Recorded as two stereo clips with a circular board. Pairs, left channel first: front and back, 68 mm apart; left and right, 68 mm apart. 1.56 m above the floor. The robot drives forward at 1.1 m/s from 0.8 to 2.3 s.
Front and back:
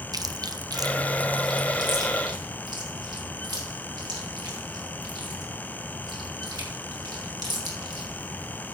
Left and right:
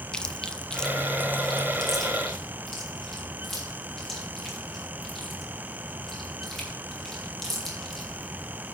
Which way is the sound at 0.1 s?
170° left.